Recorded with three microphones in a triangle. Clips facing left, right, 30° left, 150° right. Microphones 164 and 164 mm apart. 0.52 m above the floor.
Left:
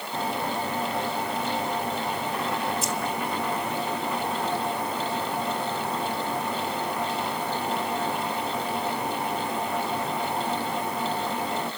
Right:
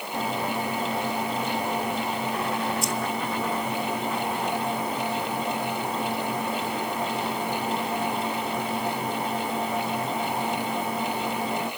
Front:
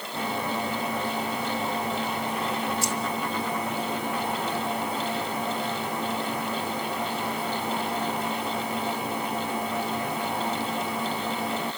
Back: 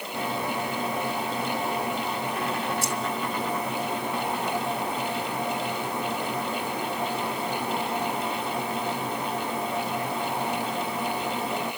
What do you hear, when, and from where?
2.8 s keys jangling: straight behind, 2.5 m